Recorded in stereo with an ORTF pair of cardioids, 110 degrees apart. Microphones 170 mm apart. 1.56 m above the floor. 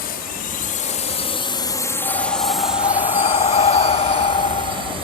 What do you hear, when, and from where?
0.0 s a drone: 65° left; by 5.0 s 35° right
2.0 s breathing: 35° left